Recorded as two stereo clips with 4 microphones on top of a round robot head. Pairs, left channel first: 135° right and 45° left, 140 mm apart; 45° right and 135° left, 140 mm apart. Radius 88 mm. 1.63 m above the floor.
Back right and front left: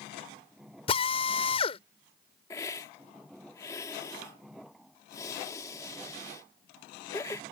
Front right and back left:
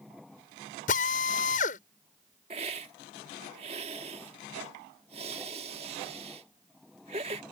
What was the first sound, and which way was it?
A drill, 85° right.